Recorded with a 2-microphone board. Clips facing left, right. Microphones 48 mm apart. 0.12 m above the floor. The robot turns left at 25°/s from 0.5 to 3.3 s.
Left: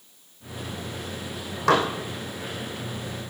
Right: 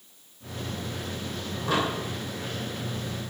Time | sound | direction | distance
1.7 | dishes clattering | 80° left | 4 m